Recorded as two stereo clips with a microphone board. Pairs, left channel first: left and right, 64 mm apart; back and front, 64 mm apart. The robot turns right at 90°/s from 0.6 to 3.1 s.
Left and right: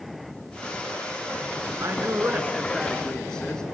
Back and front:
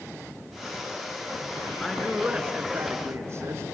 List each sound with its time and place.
1.8 s a man speaking: 100° right, 1.6 m; by 3.6 s 15° left, 1.6 m